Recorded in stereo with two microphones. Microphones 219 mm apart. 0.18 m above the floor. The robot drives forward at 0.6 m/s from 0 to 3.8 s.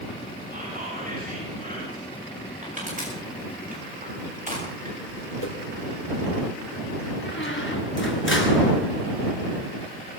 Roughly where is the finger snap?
No finger snap in this recording.